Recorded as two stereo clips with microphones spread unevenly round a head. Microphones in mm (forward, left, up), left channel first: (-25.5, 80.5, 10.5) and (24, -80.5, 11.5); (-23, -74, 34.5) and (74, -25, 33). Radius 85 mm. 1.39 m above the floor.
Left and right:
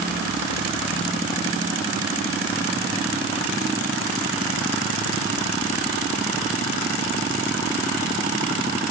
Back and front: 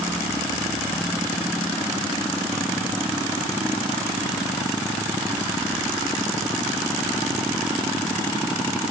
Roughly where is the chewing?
I don't hear chewing.